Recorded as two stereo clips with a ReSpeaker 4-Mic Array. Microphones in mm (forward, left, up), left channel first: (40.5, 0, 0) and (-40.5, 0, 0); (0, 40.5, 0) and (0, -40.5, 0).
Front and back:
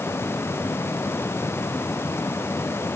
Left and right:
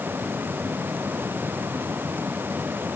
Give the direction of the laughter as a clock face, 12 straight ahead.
I don't hear laughter.